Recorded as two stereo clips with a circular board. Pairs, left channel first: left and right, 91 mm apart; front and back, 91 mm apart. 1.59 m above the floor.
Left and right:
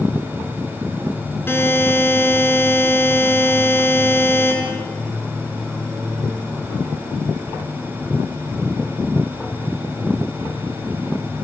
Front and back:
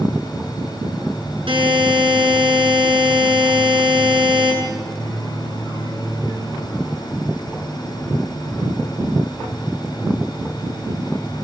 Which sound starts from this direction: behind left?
A buzzer, at 1.5 s.